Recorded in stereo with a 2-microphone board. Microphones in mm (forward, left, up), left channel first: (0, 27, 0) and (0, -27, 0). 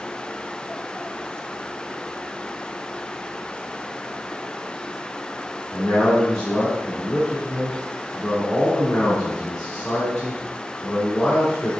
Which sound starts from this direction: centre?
A man speaking, at 5.7 s.